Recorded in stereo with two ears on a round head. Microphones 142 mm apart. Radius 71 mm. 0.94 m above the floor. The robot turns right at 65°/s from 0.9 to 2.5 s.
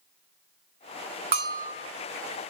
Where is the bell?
40° right (ahead or behind), 1.2 m; by 1.7 s 10° right (ahead or behind), 1.2 m.